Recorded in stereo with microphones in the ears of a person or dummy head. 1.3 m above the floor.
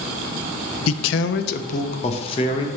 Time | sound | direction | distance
0.9 | a man speaking | 85° left | 0.7 m